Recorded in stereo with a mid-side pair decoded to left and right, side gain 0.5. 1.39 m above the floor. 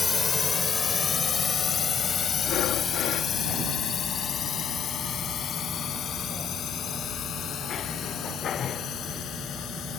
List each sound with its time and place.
0.0 s a drone: 30° left; by 10.0 s 60° left
2.4 s breathing: 70° left